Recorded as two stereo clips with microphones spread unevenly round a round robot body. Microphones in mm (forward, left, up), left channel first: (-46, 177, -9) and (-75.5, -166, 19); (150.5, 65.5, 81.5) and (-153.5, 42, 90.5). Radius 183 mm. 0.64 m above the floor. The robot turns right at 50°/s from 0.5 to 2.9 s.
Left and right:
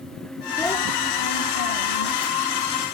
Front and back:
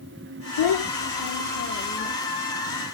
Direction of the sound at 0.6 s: 5° right.